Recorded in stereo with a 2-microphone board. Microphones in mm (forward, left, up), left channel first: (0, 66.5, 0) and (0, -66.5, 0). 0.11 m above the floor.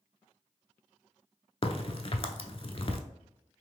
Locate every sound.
1.6 s a crack: 45° left (ahead or behind), 0.5 m